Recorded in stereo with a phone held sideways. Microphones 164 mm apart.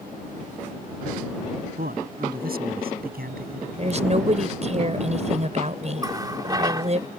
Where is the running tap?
25° right (ahead or behind).